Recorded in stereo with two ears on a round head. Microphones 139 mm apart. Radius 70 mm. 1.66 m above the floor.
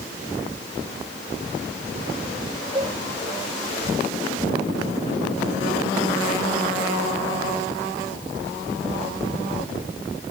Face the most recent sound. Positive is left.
turn(degrees=-30)  # may be behind; listen again after turning